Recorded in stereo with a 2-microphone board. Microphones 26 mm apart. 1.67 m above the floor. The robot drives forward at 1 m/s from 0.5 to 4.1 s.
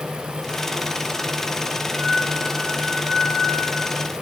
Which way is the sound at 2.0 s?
Centre (ahead or behind).